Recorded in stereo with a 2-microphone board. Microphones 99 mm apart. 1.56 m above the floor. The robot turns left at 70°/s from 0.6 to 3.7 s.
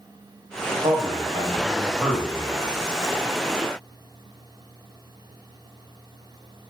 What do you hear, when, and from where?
0.8 s a man speaking: 65° right (ahead or behind), 0.7 m; by 2.8 s 30° left (ahead or behind), 0.7 m